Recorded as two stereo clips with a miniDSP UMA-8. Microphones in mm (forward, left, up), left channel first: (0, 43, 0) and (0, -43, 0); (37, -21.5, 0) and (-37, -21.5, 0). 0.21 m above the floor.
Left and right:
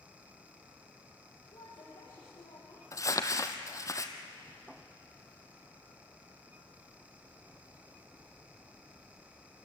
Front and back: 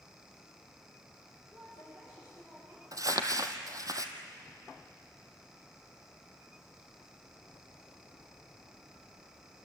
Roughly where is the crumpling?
Behind left.